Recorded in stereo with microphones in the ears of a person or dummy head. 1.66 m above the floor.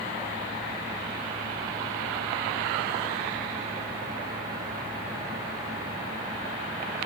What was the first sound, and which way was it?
Only background noise.